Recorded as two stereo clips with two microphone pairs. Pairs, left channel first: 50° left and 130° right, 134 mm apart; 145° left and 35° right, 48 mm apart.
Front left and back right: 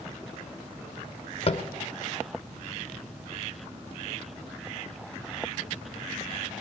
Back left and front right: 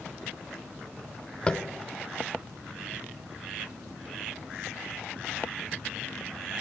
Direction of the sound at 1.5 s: 85° left.